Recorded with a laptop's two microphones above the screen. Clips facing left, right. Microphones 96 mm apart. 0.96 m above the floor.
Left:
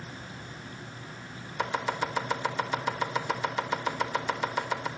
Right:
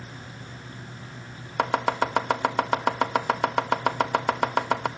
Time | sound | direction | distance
1.6 | chopping | 65° right (ahead or behind) | 1.1 m